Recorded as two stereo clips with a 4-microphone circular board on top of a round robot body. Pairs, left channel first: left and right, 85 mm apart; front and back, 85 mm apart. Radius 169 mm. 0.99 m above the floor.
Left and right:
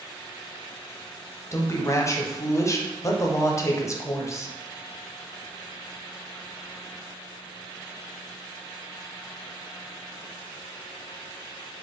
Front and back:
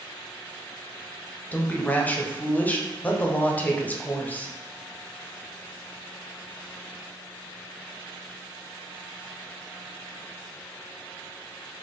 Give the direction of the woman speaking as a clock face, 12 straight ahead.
10 o'clock.